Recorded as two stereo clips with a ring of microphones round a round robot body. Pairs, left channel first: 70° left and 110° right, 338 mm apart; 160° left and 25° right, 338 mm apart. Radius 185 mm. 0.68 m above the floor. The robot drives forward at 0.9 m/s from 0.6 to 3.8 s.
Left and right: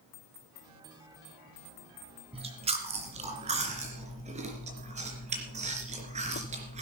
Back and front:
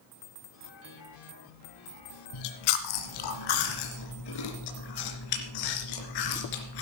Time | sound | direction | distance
2.3 | chewing | 175° left | 1.8 m